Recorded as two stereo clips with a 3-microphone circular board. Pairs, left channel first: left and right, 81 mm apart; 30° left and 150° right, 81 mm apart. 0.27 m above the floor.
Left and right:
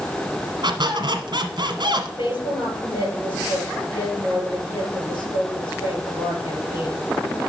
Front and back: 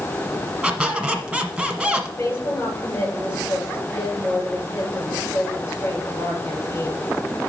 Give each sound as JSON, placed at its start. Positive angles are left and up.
{"t": 0.6, "sound": "a squeak", "azimuth_deg": -70, "distance_m": 1.4}
{"t": 2.2, "sound": "a woman speaking", "azimuth_deg": 85, "distance_m": 5.0}